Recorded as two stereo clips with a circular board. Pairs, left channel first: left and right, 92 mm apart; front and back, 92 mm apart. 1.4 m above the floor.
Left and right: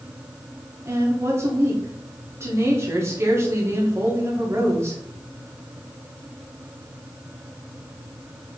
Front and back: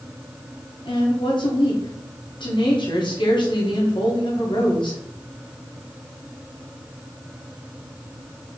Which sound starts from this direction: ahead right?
A woman speaking, at 0.8 s.